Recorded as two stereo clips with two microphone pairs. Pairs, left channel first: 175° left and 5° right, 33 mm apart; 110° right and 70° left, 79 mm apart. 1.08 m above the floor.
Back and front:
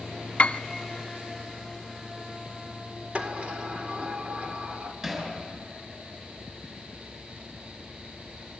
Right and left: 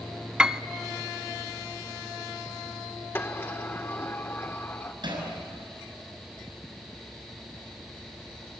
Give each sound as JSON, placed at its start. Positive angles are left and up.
{"t": 0.4, "sound": "a piano", "azimuth_deg": 150, "distance_m": 0.5}
{"t": 3.1, "sound": "a sliding door", "azimuth_deg": -50, "distance_m": 1.8}
{"t": 5.0, "sound": "hammering", "azimuth_deg": 65, "distance_m": 6.5}